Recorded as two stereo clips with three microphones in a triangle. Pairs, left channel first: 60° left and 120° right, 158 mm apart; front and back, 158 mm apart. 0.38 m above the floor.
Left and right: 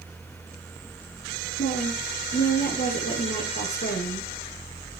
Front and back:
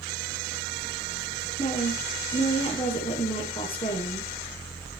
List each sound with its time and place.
1.6 s a woman speaking: 60° left, 7.5 m